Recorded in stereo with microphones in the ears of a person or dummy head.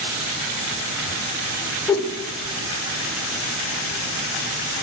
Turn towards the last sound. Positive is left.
turn(degrees=15)  # may be behind; listen again after turning